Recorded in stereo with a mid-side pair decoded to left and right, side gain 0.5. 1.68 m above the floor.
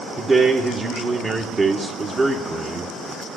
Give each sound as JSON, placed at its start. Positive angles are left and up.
{"t": 0.2, "sound": "a man speaking", "azimuth_deg": -30, "distance_m": 1.5}